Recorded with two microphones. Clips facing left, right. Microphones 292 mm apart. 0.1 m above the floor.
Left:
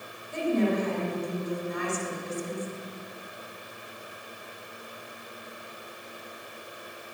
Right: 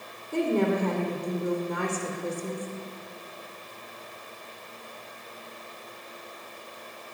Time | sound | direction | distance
0.3 | a woman speaking | 65° right (ahead or behind) | 4.5 m